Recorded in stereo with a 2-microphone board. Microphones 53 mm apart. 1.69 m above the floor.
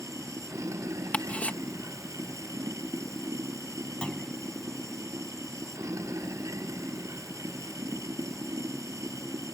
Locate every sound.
0.0 s running water: 75° right (ahead or behind)
1.1 s ticking: 30° left (ahead or behind)
4.0 s a clunk: 20° left (ahead or behind)